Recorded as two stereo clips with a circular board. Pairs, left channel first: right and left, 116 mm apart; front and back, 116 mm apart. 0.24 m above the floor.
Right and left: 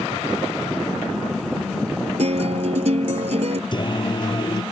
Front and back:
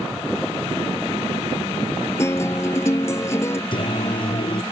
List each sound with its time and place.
2.2 s a guitar: 65° left
3.7 s singing: 40° right